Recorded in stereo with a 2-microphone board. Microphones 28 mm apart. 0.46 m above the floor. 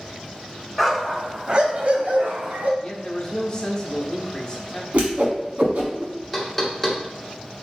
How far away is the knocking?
About 1.0 m.